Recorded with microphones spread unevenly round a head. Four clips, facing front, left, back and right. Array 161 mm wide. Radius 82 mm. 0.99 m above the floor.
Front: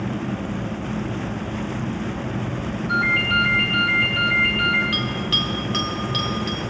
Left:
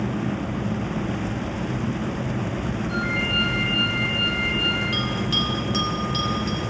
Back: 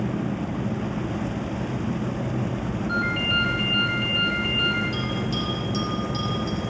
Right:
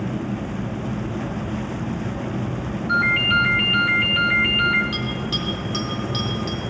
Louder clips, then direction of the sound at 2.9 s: Right 10 dB, front 5 dB; 70° right.